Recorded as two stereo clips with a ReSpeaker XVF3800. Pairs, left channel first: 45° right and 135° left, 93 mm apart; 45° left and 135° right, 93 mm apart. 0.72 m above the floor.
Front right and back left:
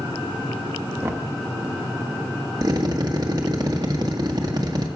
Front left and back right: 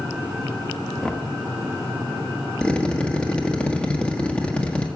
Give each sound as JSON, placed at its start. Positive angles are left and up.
{"t": 1.0, "sound": "knocking", "azimuth_deg": 115, "distance_m": 0.8}
{"t": 2.6, "sound": "a drill", "azimuth_deg": 120, "distance_m": 1.3}